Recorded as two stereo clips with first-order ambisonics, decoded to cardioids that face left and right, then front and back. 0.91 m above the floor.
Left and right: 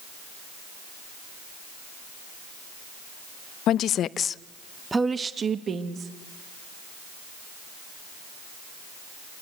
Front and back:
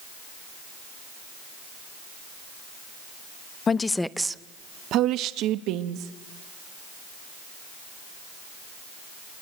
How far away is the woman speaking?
About 0.7 m.